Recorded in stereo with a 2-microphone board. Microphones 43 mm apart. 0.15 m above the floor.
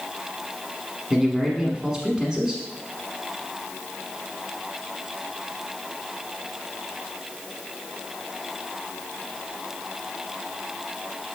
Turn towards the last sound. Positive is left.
turn(degrees=-15)  # may be behind; listen again after turning